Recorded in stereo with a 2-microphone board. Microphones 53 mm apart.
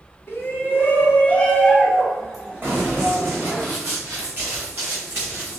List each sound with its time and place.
0.3 s a shout: 50° left (ahead or behind), 1.5 m; by 3.6 s 20° right (ahead or behind), 2.5 m
2.6 s running footsteps: 40° right (ahead or behind), 2 m; by 5.6 s 35° right (ahead or behind), 3.5 m